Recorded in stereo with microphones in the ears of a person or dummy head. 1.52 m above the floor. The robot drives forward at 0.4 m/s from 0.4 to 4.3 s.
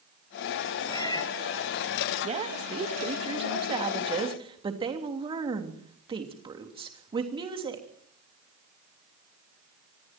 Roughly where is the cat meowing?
Left.